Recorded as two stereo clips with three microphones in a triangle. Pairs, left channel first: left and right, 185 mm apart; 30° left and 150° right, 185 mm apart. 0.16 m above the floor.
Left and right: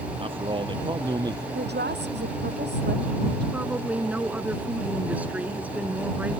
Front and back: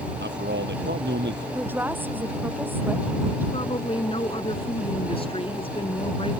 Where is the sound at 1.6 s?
70° right.